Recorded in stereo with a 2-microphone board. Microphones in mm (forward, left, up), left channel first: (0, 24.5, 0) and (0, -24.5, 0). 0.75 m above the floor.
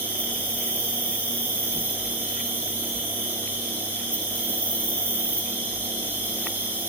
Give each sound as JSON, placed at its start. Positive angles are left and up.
{"t": 0.0, "sound": "an insect", "side_deg": -40, "distance_m": 5.0}